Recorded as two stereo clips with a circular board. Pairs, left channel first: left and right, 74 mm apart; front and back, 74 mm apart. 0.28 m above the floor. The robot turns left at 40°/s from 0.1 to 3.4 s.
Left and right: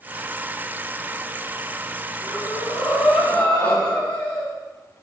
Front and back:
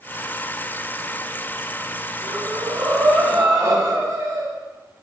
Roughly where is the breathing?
Behind.